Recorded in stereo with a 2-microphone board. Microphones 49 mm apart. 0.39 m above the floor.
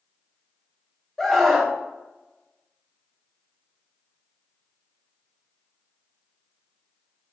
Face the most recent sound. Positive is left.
turn(degrees=10)  # may be behind; listen again after turning